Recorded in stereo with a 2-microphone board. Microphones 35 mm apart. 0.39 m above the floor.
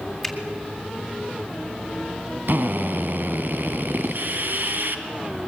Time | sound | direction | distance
0.2 | a finger snap | 5° left (ahead or behind) | 3 m
2.5 | a drill | 65° right (ahead or behind) | 1.8 m